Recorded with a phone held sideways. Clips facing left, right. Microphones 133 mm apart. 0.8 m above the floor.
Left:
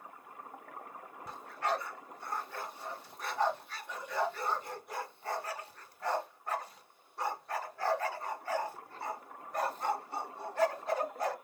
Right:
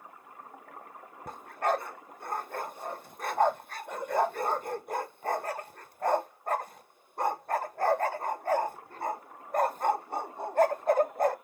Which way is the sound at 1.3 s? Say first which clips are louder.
Right 5 dB; 50° right (ahead or behind).